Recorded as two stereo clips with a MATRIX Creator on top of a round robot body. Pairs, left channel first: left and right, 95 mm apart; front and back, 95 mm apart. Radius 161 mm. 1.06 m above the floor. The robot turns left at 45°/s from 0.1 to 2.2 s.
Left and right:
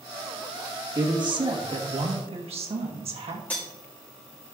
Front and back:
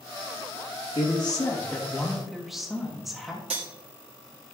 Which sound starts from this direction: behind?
Cutlery clinking, at 3.5 s.